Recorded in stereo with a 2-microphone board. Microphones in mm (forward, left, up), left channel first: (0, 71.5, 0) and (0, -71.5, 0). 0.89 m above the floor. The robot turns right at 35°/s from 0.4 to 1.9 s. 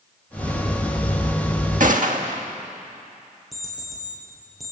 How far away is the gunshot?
About 1.6 m.